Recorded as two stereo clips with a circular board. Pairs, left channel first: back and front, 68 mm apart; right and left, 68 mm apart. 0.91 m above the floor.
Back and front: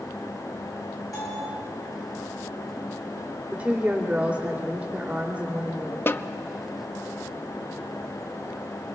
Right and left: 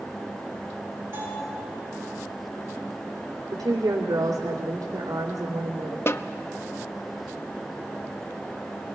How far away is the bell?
About 8.5 m.